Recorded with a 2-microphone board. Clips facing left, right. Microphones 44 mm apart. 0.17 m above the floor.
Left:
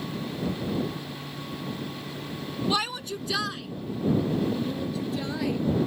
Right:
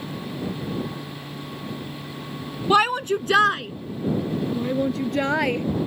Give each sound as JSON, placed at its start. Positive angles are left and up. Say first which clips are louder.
{"t": 2.7, "sound": "a shout", "louder": "right 12 dB", "side_deg": -45}